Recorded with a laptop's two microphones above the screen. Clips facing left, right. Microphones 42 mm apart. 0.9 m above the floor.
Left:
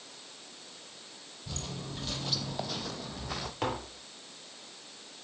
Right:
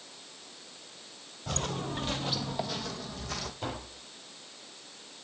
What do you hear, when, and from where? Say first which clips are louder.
1.5 s footsteps: right 7 dB; 55° right (ahead or behind), 1.4 m; by 3.5 s 15° left (ahead or behind), 2.5 m
3.6 s tapping: left 4 dB; 75° left (ahead or behind), 3.5 m